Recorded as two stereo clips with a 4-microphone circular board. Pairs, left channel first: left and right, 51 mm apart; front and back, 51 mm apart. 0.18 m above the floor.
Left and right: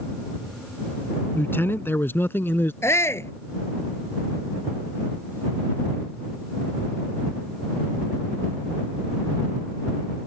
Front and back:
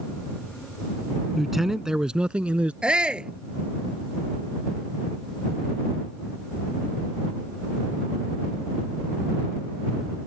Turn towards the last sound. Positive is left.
turn(degrees=110)